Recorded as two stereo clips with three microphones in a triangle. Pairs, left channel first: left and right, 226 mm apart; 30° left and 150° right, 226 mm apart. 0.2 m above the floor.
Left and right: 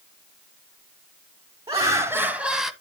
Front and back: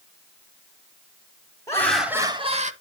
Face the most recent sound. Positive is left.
turn(degrees=180)